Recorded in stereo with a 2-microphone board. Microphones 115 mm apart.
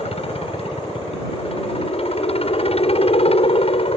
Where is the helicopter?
60° left (ahead or behind); by 4.0 s 55° left (ahead or behind).